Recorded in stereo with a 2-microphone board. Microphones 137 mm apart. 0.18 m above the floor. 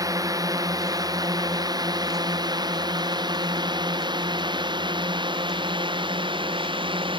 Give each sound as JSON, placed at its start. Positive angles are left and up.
{"t": 0.0, "sound": "a drone", "side_deg": -25}